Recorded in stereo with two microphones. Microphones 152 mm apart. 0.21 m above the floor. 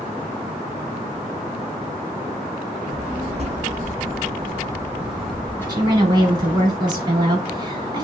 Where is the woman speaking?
25° right (ahead or behind), 1.5 m.